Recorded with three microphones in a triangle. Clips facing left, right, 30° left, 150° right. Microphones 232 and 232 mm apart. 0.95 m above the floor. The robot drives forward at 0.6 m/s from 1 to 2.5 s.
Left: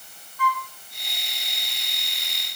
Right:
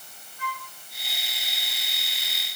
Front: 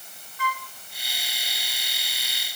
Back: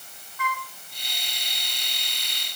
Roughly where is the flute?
Ahead right.